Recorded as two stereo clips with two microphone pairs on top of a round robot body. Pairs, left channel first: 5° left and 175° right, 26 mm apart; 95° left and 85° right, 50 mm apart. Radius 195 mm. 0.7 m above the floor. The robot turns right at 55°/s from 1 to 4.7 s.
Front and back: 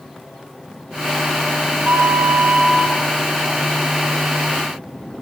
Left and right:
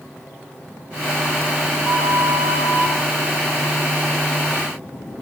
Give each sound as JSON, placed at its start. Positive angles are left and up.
{"t": 1.9, "sound": "a flute", "azimuth_deg": -170, "distance_m": 2.5}